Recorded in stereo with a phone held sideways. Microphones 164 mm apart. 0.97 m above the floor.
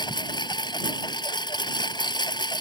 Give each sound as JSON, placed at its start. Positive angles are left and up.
{"t": 0.0, "sound": "a lawn mower", "side_deg": 30}